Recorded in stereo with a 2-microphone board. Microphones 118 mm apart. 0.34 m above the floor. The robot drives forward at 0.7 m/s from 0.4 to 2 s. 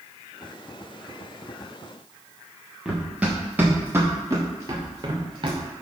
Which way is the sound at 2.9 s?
5° right (ahead or behind).